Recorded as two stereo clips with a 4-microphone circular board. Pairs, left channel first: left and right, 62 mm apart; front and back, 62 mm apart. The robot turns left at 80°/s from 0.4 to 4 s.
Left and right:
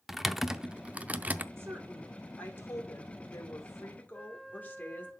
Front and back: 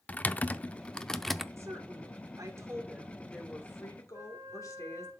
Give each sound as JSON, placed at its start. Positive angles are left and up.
{"t": 0.1, "sound": "typing on a keyboard", "azimuth_deg": -10, "distance_m": 0.5}
{"t": 1.6, "sound": "a woman speaking", "azimuth_deg": -135, "distance_m": 2.5}
{"t": 4.1, "sound": "a flute", "azimuth_deg": 175, "distance_m": 2.0}